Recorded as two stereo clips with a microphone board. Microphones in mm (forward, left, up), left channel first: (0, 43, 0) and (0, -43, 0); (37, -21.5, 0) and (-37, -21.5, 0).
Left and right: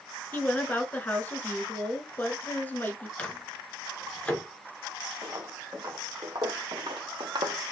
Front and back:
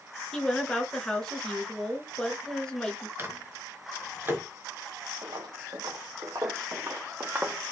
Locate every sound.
0.3 s a woman speaking: 65° left, 1.1 m
3.2 s a microwave: 155° left, 1.0 m
5.2 s footsteps: 150° right, 1.8 m; by 7.7 s 100° right, 1.0 m